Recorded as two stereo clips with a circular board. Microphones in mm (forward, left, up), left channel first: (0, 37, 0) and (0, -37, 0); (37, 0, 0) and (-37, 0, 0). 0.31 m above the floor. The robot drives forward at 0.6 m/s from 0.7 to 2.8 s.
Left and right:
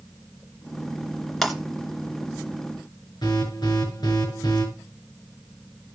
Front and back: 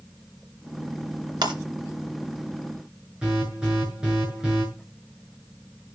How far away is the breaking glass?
About 2 m.